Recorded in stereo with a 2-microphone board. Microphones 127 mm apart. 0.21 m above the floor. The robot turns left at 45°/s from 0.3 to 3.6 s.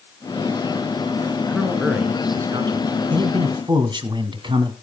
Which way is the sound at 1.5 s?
15° left.